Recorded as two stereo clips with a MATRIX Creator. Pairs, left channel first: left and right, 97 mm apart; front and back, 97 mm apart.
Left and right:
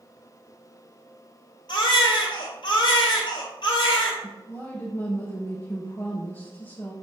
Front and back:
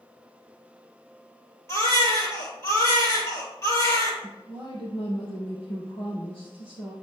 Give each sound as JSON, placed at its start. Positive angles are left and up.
{"t": 1.7, "sound": "a baby crying", "azimuth_deg": 60, "distance_m": 2.5}
{"t": 4.2, "sound": "a woman speaking", "azimuth_deg": 20, "distance_m": 2.5}